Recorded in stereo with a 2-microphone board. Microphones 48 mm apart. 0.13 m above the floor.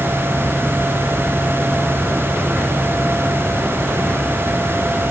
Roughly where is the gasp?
I don't hear a gasp.